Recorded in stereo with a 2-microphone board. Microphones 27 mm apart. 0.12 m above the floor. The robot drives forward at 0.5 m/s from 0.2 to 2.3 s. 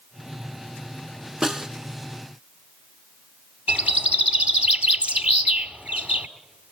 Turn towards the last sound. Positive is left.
turn(degrees=-60)  # may be behind; listen again after turning